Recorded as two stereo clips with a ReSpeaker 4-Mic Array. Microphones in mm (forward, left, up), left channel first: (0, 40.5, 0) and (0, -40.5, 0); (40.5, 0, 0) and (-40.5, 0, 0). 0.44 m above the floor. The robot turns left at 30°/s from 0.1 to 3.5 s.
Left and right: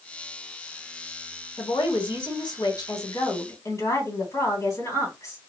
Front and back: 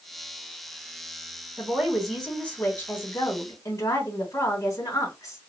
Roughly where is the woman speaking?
Left.